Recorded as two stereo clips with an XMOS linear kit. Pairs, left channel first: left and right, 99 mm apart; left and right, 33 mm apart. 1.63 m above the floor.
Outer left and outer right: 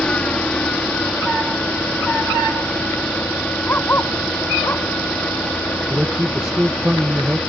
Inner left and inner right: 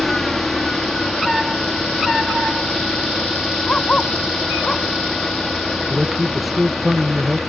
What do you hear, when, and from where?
0.0 s an engine running: 10° left (ahead or behind)
3.7 s a dog barking: 20° left (ahead or behind)
5.9 s a man speaking: 10° right (ahead or behind)